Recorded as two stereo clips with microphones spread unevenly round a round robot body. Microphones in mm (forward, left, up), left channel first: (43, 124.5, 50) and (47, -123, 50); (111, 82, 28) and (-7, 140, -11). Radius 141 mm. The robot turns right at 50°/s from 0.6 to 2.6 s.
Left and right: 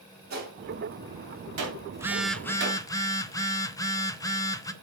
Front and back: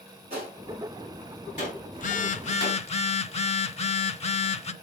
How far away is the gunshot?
About 3 m.